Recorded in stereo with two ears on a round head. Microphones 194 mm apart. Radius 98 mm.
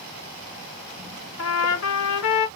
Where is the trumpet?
75° left (ahead or behind), 0.8 m.